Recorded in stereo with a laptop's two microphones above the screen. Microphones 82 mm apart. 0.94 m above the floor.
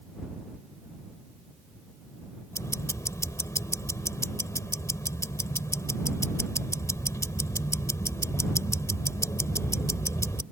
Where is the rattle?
I don't hear a rattle.